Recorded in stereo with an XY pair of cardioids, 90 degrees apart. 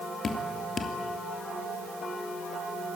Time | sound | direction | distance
0.2 | dripping | 50° left | 3 m